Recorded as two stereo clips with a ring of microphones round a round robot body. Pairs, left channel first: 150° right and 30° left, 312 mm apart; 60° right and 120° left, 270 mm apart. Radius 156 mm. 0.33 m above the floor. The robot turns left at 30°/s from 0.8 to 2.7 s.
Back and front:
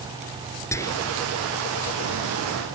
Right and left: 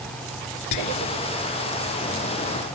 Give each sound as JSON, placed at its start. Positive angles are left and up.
{"t": 0.7, "sound": "whispering", "azimuth_deg": -70}